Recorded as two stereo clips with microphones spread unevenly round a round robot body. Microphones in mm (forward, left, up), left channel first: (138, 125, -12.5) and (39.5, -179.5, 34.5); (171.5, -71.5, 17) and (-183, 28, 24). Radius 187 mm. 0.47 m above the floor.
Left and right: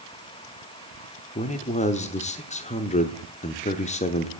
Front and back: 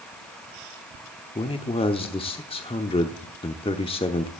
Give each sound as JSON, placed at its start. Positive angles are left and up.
{"t": 1.4, "sound": "a man speaking", "azimuth_deg": 45, "distance_m": 0.8}